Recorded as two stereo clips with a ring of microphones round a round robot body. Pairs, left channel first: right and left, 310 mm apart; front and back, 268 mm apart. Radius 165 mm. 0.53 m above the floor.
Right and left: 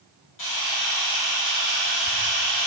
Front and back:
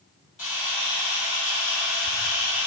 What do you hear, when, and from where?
0.4 s a camera shutter: 55° right, 1.2 m